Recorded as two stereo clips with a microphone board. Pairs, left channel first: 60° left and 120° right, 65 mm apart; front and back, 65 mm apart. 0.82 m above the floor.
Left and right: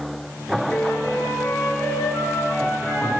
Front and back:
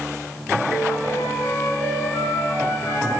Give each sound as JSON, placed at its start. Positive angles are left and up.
{"t": 0.7, "sound": "a flute", "azimuth_deg": 5, "distance_m": 7.0}